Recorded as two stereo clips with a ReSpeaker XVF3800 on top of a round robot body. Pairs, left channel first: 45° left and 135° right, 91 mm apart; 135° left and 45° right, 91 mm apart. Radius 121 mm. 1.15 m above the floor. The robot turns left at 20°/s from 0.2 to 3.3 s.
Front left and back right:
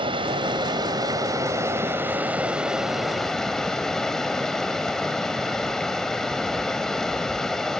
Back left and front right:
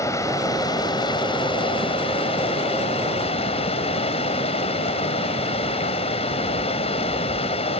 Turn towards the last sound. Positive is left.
turn(degrees=130)